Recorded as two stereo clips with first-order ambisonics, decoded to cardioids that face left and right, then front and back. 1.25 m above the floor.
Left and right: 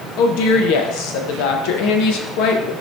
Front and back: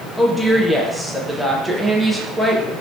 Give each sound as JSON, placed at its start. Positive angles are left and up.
{"t": 0.2, "sound": "a woman speaking", "azimuth_deg": 85, "distance_m": 0.6}